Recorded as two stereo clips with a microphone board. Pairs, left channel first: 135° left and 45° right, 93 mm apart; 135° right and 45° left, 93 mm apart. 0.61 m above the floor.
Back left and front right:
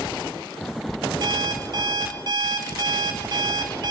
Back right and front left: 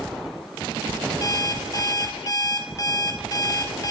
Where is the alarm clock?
90° right, 2.5 m.